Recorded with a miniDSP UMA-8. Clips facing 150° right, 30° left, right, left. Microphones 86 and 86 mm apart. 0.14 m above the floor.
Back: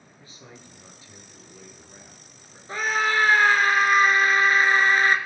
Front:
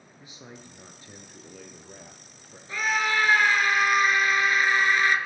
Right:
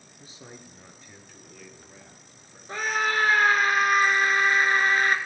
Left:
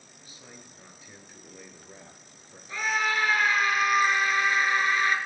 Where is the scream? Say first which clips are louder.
Back 2 dB, right 1 dB; 115° right, 2.0 m.